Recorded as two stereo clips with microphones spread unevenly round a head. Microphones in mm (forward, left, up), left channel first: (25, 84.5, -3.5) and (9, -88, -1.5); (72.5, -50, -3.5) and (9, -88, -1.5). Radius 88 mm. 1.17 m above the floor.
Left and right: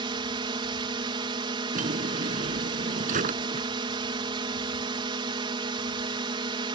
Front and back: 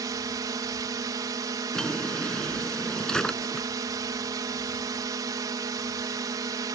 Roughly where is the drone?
Behind right.